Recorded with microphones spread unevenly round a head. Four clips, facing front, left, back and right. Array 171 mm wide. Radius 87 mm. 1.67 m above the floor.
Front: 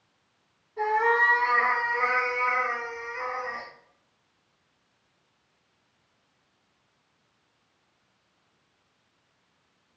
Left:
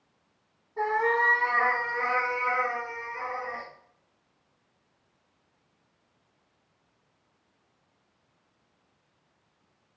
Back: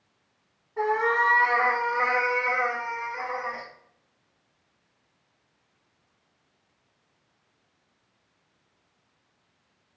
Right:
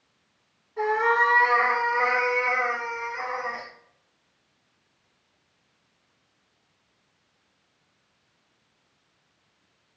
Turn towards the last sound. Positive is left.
turn(degrees=-140)